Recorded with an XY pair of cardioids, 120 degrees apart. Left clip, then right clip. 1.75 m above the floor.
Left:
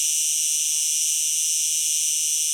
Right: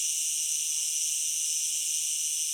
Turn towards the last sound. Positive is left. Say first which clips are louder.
# left 7 dB
turn(degrees=60)